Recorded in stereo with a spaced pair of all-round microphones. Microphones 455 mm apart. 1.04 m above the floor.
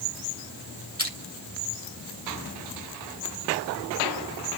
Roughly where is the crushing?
Right.